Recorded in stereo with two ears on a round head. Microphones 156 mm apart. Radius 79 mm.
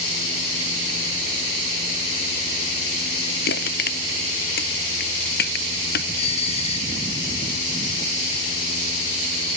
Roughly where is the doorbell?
Left.